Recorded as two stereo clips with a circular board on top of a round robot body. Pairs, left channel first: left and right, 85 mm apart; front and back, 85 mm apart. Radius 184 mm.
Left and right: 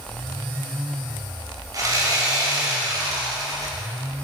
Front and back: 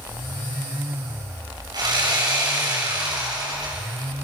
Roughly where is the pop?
No pop in this recording.